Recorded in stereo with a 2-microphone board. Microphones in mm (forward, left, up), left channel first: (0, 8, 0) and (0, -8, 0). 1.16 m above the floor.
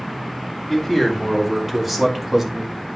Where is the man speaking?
Centre (ahead or behind), 3.5 m; by 2.8 s 35° right (ahead or behind), 1.7 m.